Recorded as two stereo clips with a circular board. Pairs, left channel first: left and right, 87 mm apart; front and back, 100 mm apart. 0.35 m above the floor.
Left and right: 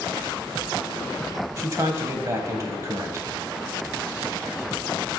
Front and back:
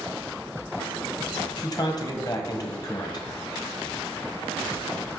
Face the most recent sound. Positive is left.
turn(degrees=-40)